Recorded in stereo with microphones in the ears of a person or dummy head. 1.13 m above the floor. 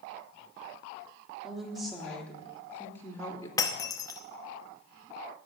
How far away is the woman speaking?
About 3.5 m.